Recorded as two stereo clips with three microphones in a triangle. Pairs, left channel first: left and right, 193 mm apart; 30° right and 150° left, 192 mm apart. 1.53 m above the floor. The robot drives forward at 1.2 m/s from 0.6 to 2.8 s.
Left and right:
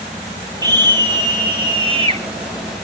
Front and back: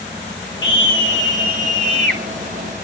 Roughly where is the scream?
Ahead.